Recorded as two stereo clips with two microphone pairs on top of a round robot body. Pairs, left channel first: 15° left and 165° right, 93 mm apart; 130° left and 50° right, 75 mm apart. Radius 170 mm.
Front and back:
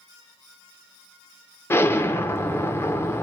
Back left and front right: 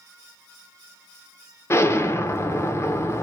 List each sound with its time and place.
1.7 s an explosion: 75° left, 0.9 m